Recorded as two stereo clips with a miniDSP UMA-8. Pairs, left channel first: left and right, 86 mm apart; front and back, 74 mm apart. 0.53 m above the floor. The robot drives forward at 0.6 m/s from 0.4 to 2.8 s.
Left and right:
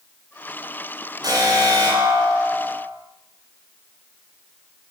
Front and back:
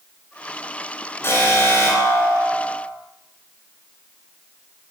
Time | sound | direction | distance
1.2 | an alarm | 55° right | 10 m